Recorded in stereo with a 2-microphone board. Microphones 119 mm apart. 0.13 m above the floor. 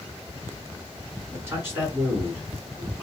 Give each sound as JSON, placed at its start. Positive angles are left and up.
{"t": 1.3, "sound": "a man speaking", "side_deg": -20, "distance_m": 1.3}